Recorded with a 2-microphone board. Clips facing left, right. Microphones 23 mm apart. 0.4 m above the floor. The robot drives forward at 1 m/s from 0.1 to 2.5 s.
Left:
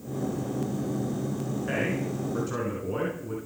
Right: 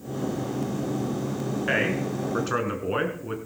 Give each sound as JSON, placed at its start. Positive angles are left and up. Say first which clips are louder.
{"t": 1.7, "sound": "a man speaking", "louder": "right 5 dB", "side_deg": -45, "distance_m": 4.5}